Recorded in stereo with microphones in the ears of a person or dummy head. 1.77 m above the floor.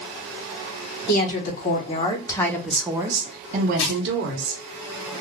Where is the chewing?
65° left (ahead or behind), 0.8 m.